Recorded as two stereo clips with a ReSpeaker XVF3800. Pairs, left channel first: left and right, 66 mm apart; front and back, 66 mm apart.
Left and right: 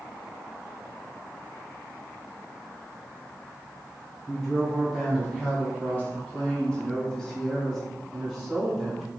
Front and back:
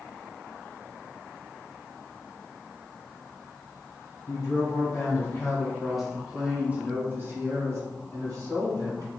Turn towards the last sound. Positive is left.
turn(degrees=180)